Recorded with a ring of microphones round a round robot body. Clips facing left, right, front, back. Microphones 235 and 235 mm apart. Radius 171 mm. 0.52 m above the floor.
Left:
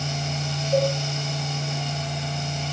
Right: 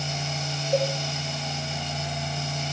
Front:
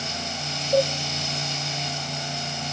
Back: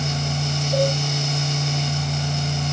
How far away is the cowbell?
About 1.6 m.